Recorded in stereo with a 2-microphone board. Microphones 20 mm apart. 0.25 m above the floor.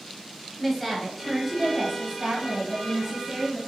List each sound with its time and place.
0.6 s a woman speaking: 10° left (ahead or behind), 1.3 m; by 3.6 s 55° right (ahead or behind), 2.5 m